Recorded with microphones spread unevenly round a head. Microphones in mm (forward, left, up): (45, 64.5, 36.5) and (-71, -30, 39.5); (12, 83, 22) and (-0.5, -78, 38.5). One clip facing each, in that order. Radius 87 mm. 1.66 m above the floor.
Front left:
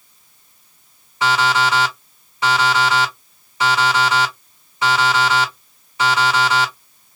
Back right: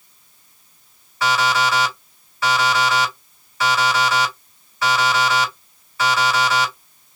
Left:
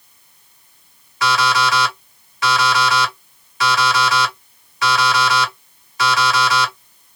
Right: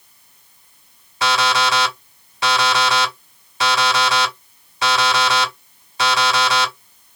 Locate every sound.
1.2 s an alarm clock: 35° right, 2.5 m